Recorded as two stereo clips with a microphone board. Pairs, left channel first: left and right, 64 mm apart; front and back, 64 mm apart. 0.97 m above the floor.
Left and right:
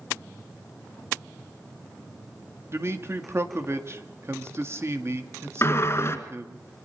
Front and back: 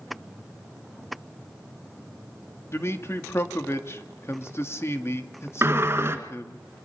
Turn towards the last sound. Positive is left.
turn(degrees=130)